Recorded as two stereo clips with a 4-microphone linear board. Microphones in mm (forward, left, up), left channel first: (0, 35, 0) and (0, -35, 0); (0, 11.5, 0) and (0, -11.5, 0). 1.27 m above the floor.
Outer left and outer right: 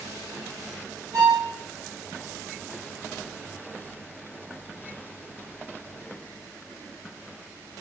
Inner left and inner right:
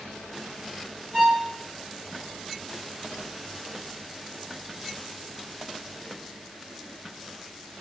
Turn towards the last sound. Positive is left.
turn(degrees=-65)  # may be behind; listen again after turning